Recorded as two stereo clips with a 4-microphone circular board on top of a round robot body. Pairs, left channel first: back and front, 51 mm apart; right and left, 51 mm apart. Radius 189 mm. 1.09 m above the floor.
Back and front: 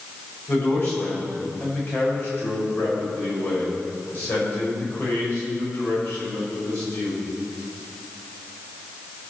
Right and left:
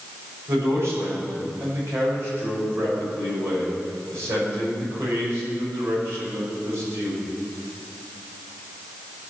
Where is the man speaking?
130° left, 6 m.